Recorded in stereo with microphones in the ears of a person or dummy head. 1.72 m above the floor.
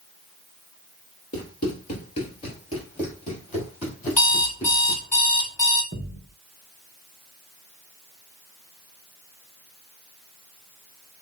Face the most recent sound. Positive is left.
turn(degrees=-20)  # may be behind; listen again after turning